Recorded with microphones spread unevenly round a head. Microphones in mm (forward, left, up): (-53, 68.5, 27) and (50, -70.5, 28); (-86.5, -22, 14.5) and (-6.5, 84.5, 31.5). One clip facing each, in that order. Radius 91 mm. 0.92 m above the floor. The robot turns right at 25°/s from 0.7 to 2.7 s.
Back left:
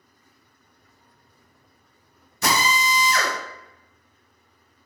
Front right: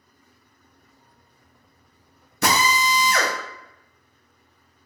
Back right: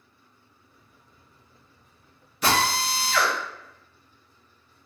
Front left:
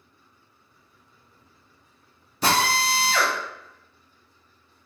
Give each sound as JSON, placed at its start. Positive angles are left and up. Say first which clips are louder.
{"t": 2.4, "sound": "a drill", "louder": "front right 2 dB, front left 1 dB", "azimuth_deg": -15, "distance_m": 0.8}